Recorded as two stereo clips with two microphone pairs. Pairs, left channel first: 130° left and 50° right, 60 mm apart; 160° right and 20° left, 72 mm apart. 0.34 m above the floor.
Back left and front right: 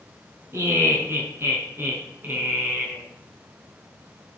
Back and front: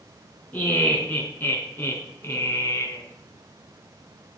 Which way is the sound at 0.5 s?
90° right.